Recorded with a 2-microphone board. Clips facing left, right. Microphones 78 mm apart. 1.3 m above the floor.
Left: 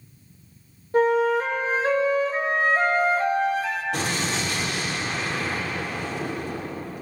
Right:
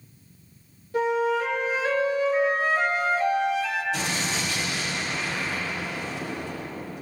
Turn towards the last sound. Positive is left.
turn(degrees=55)  # may be behind; listen again after turning